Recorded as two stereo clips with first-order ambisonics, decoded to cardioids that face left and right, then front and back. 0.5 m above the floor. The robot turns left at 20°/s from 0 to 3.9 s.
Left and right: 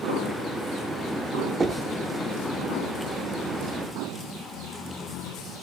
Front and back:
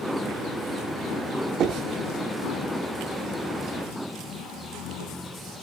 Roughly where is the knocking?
Behind right.